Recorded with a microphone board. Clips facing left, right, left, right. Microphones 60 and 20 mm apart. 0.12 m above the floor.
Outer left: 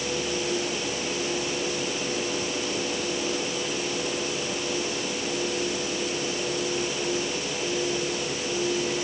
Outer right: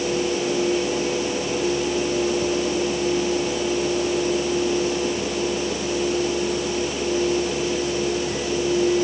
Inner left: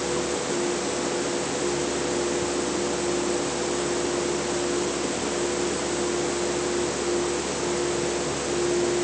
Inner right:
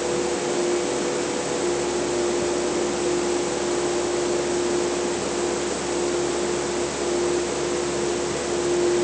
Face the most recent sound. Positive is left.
No sound to turn to.